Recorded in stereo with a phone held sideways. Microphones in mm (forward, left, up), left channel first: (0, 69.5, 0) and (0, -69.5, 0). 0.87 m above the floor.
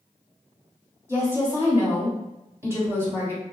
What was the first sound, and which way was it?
A woman speaking, 20° right (ahead or behind).